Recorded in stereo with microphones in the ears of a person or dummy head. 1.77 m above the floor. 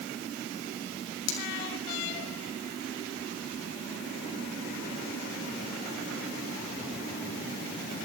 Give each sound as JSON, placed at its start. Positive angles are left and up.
{"t": 1.3, "sound": "cutlery clinking", "side_deg": 80, "distance_m": 6.0}